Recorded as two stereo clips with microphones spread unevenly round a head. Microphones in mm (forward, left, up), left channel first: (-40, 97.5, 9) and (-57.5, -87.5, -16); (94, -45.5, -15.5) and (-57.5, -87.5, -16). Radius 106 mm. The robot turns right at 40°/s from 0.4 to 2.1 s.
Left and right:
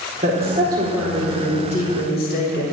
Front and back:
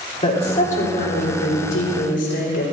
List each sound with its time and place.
0.2 s a woman speaking: 35° right, 4 m; by 2.6 s 35° left, 4 m